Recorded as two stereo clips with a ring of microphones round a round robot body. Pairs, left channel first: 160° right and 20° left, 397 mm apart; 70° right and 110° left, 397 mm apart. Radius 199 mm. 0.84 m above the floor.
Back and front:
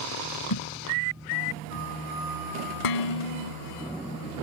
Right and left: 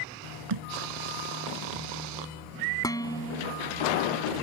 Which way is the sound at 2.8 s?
150° right.